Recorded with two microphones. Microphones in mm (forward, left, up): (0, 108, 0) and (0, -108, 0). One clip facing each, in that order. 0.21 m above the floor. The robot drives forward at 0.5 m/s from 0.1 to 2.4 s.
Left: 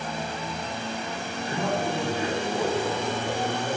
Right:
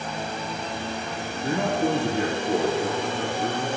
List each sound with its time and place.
1.4 s a man speaking: 70° right (ahead or behind), 6.5 m